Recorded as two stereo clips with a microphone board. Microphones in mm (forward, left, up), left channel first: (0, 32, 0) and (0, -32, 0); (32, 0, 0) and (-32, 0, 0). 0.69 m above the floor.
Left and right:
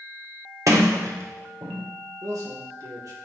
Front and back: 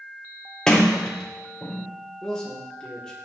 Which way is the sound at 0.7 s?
75° right.